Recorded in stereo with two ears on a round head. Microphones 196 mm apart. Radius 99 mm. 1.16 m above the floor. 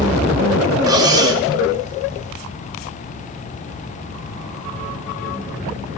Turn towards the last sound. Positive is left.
turn(degrees=-15)  # may be behind; listen again after turning